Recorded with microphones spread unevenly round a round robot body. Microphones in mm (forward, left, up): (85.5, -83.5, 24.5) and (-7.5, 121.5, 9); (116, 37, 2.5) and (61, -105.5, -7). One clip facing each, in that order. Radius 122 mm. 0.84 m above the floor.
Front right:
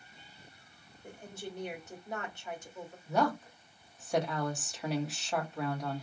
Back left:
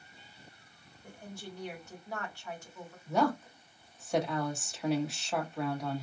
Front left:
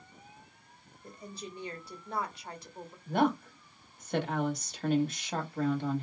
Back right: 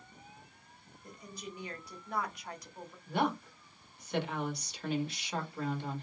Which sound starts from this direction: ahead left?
A woman speaking, at 3.1 s.